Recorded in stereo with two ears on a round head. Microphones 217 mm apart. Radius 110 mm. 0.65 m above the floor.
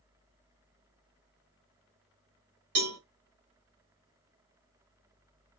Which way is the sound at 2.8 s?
70° right (ahead or behind).